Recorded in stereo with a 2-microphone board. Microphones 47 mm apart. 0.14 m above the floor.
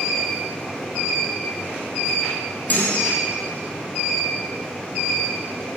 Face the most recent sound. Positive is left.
turn(degrees=35)  # may be behind; listen again after turning